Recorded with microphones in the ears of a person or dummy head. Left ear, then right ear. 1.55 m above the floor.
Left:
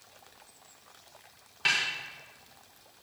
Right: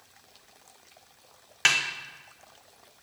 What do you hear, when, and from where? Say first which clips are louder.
1.6 s a snare drum: right 4 dB; 55° right (ahead or behind), 0.8 m